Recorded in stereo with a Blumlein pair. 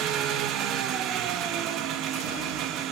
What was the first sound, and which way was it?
An engine running, 35° right.